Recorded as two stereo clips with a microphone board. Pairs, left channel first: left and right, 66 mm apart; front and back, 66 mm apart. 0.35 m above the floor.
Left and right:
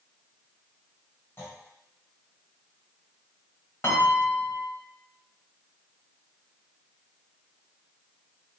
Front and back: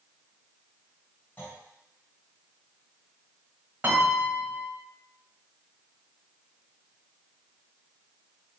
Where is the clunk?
50° left, 1.5 m.